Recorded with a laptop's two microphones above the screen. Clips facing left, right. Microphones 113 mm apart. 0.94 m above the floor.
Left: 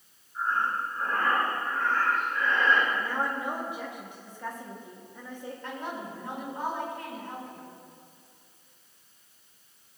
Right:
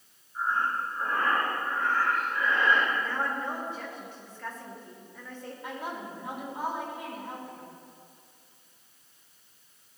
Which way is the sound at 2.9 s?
15° left (ahead or behind).